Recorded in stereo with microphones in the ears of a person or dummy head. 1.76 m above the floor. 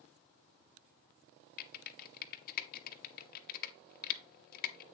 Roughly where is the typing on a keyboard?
Left.